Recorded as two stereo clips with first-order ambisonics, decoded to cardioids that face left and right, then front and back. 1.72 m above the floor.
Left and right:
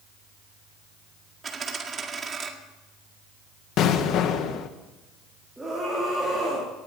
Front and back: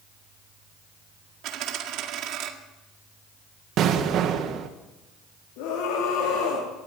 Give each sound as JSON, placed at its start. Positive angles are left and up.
{"t": 1.4, "sound": "a dropped coin", "azimuth_deg": -155, "distance_m": 1.8}
{"t": 3.8, "sound": "an explosion", "azimuth_deg": 135, "distance_m": 1.5}
{"t": 5.6, "sound": "a scream", "azimuth_deg": -5, "distance_m": 4.5}